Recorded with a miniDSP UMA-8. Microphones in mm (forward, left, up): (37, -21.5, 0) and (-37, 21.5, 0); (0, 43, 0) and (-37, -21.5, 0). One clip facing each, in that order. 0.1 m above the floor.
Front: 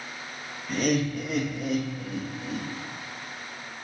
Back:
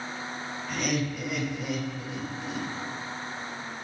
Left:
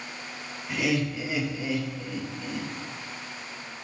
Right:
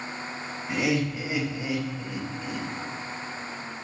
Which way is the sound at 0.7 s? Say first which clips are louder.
Front 5 dB, right 1 dB; 65° right.